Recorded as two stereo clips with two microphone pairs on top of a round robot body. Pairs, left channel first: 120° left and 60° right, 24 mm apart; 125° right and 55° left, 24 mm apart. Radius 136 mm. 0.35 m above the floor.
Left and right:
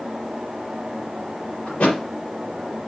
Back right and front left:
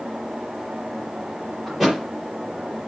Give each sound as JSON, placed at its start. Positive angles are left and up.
{"t": 1.7, "sound": "a thud", "azimuth_deg": 145, "distance_m": 5.0}